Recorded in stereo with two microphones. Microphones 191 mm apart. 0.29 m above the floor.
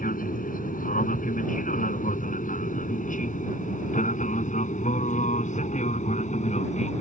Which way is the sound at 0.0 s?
50° left (ahead or behind).